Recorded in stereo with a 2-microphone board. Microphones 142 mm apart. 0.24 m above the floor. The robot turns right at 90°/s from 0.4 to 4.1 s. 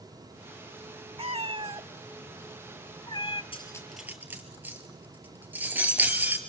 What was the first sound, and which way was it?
A cat meowing, 40° right (ahead or behind).